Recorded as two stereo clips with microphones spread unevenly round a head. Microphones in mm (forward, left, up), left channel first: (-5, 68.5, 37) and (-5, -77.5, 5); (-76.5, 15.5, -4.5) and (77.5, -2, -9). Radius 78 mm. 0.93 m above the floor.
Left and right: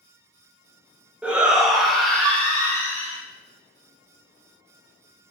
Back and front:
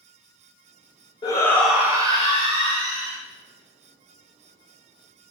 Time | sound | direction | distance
1.2 | a shout | 145° right | 0.7 m